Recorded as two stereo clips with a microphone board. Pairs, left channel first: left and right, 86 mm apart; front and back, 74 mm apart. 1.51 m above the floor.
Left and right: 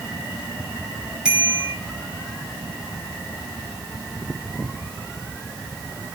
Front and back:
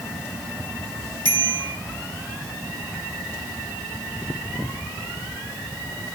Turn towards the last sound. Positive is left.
turn(degrees=-170)